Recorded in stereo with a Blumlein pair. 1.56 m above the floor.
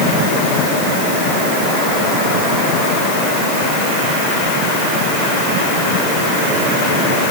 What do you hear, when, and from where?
Only background noise.